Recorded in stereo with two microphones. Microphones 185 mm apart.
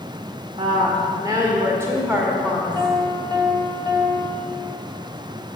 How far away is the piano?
About 2.0 m.